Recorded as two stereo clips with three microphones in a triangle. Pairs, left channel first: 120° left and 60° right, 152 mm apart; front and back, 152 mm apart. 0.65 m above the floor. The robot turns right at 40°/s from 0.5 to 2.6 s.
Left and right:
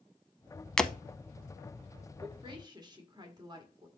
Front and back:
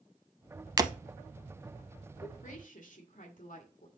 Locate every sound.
0.8 s breaking glass: 165° right, 0.5 m; by 0.9 s 155° right, 0.5 m
2.2 s a woman speaking: 20° right, 1.7 m; by 3.9 s 5° right, 1.7 m